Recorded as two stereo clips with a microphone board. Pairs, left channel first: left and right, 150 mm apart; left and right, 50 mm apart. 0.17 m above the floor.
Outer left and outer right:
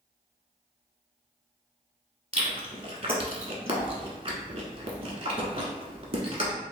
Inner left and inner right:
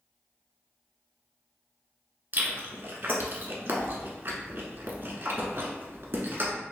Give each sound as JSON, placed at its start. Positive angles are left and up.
{"t": 2.3, "sound": "chewing", "side_deg": -45, "distance_m": 0.9}